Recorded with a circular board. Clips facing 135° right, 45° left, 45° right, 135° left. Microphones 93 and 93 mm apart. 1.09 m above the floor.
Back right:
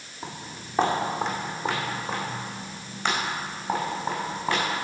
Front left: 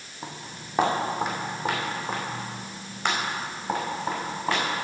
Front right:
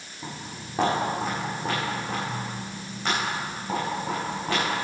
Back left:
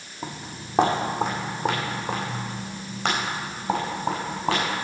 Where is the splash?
I don't hear a splash.